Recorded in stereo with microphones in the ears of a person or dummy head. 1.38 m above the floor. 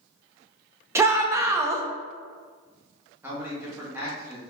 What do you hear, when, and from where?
0.9 s a shout: 15° right (ahead or behind), 0.6 m
3.2 s a man speaking: 15° right (ahead or behind), 1.4 m